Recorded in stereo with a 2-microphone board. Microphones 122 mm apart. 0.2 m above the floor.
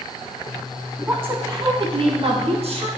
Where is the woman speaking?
10° right (ahead or behind), 1.0 m; by 2.9 s 60° right (ahead or behind), 1.8 m.